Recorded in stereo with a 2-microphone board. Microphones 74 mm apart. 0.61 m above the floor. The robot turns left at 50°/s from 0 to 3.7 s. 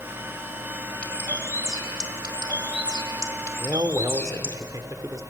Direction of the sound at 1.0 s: 165° left.